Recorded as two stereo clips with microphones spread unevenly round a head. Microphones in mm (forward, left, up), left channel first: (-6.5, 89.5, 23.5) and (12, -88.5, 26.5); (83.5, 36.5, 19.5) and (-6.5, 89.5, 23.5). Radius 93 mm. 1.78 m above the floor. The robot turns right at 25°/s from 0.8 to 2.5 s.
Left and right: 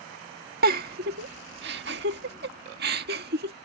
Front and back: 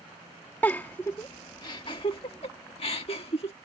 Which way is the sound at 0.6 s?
110° right.